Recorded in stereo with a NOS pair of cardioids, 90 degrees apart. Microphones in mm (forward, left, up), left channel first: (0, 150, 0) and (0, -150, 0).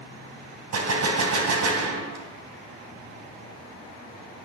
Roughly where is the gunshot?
Ahead right.